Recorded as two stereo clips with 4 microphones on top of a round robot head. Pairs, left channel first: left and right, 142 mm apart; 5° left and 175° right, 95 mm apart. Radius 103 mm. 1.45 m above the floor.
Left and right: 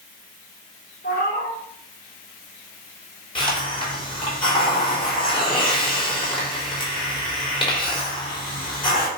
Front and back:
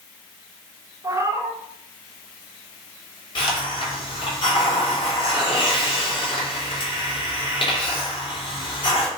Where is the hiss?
35° left, 4 m.